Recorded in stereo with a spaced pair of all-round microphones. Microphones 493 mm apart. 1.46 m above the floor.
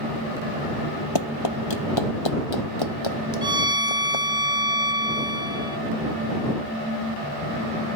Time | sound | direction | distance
1.1 | running footsteps | 55° left (ahead or behind) | ?
3.4 | a violin | 10° right (ahead or behind) | ?